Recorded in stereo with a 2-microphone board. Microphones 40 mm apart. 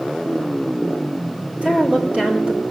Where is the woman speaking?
35° right (ahead or behind), 4.5 m.